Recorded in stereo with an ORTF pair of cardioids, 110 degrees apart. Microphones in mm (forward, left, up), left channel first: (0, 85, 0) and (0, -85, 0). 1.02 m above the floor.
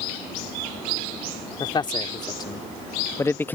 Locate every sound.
1.6 s a man speaking: 30° left; by 3.6 s 10° left